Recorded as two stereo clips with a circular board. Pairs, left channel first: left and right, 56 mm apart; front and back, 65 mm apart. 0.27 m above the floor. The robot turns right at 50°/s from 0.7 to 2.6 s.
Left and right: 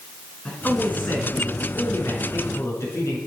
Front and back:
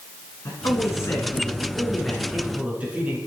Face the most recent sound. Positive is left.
turn(degrees=115)